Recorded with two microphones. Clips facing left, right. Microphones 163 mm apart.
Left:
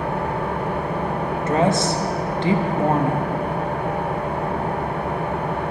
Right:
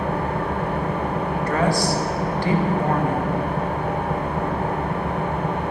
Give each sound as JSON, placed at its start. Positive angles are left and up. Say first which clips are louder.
{"t": 0.0, "sound": "an engine running", "louder": "even", "side_deg": 10, "distance_m": 3.5}
{"t": 1.5, "sound": "a woman speaking", "louder": "left 3 dB", "side_deg": 20, "distance_m": 0.8}